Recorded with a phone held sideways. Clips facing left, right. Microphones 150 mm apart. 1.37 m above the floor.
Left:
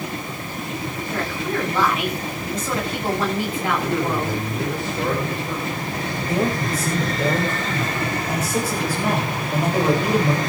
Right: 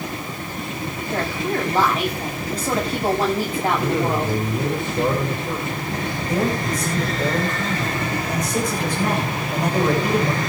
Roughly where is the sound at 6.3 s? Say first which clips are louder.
Even; centre.